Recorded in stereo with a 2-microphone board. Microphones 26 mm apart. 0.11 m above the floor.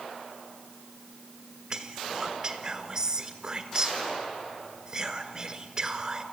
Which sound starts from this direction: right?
Whispering, at 1.7 s.